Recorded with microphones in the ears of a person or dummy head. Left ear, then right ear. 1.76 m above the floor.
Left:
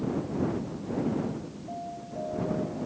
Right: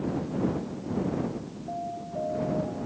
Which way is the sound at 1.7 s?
75° right (ahead or behind).